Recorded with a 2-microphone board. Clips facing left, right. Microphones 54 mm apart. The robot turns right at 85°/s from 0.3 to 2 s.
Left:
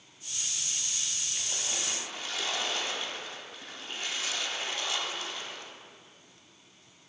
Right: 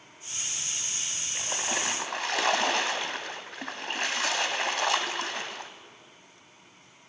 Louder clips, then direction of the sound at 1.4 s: Right 8 dB; 135° right.